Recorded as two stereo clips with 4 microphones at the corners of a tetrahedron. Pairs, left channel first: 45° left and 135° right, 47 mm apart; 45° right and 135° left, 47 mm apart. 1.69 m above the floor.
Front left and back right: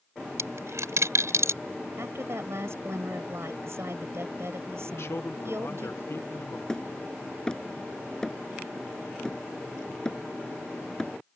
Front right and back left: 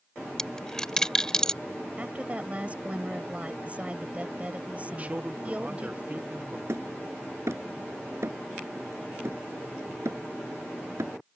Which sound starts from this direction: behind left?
Hammering, at 6.7 s.